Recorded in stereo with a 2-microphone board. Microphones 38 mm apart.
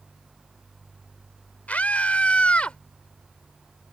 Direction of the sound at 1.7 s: 40° left (ahead or behind).